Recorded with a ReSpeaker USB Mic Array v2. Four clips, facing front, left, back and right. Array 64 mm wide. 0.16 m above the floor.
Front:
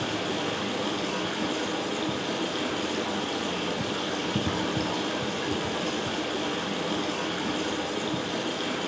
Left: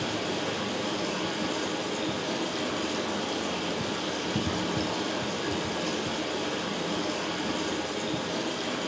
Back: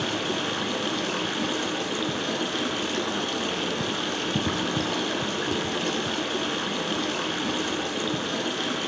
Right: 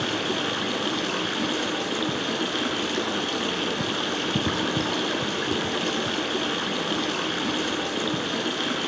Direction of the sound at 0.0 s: 115° right.